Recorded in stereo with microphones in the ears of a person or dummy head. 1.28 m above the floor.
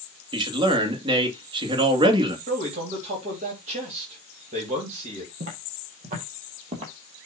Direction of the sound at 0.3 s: 30° right (ahead or behind).